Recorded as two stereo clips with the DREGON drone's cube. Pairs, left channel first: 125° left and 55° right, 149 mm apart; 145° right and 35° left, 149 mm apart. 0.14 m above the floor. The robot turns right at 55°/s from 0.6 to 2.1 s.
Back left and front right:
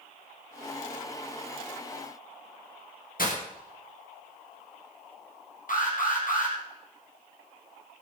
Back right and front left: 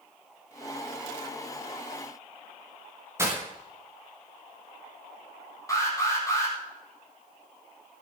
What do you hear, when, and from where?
3.2 s breaking glass: 105° left, 5.5 m
5.7 s an alarm: 145° left, 4.5 m